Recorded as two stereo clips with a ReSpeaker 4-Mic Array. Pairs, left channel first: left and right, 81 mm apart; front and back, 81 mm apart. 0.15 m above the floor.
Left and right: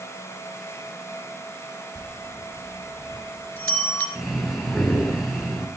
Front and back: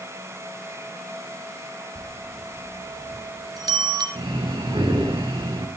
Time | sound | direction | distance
1.9 | a bell | 155° left | 2.5 m
4.2 | breathing | straight behind | 4.5 m